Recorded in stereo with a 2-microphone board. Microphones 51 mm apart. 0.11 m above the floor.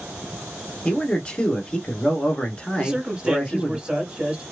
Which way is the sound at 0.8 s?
20° left (ahead or behind).